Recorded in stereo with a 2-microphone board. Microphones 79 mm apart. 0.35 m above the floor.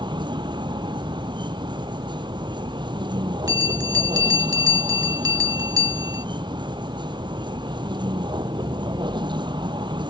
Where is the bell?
50° right (ahead or behind).